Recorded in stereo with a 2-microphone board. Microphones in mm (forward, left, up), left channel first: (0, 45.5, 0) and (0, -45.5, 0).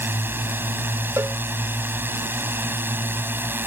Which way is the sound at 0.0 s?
25° right (ahead or behind).